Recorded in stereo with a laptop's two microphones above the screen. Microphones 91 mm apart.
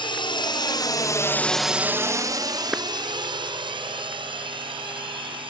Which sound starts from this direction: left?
A drone, at 0.0 s.